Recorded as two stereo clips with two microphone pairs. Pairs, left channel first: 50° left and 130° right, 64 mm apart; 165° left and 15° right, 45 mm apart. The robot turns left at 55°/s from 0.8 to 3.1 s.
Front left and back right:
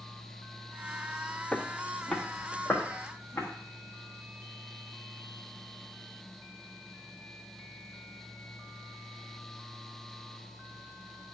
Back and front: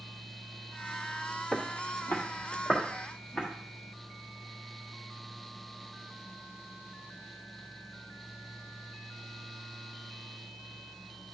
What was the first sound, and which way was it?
Footsteps, 115° left.